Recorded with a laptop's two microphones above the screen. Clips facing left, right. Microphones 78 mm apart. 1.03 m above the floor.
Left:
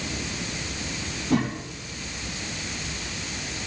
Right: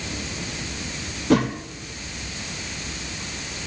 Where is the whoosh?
80° right, 2 m.